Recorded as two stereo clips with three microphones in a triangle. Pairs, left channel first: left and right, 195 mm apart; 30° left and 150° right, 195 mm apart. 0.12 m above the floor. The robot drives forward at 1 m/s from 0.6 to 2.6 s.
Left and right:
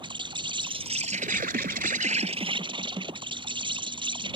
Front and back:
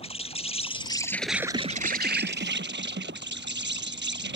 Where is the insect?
30° right; by 4.4 s 155° right.